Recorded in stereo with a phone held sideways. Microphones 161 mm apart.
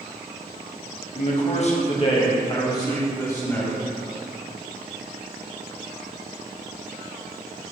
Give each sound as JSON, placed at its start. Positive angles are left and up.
{"t": 1.1, "sound": "a man speaking", "side_deg": 50, "distance_m": 1.0}